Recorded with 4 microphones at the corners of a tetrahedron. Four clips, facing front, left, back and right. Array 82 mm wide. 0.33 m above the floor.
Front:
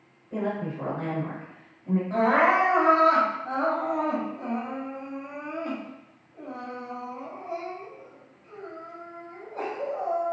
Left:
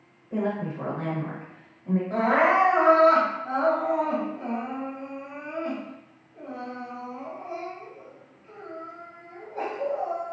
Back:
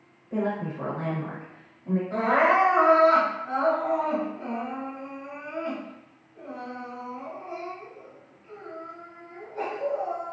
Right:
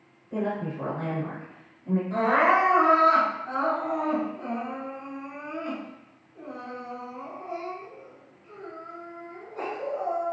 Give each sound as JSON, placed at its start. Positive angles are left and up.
{"t": 0.3, "sound": "a woman speaking", "azimuth_deg": 125, "distance_m": 0.9}
{"t": 2.1, "sound": "crying", "azimuth_deg": 55, "distance_m": 1.7}